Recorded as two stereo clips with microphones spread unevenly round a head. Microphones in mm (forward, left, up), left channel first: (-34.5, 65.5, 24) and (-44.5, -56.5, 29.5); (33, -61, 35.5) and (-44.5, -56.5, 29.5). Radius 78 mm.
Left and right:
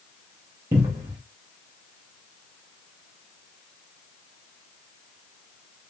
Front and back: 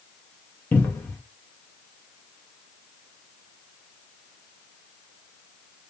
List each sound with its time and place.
0.7 s a cupboard door: 45° right, 0.5 m